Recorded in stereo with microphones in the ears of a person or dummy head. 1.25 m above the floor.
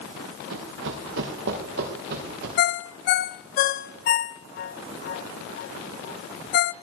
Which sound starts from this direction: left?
A ringtone, at 2.6 s.